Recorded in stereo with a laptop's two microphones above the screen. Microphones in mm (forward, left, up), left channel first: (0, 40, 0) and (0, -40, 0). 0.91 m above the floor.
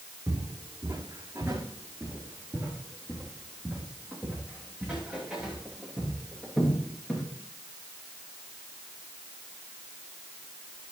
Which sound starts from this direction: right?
Footsteps, at 0.3 s.